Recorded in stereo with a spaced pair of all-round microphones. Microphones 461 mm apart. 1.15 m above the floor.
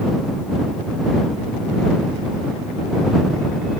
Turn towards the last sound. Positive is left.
No sound to turn to.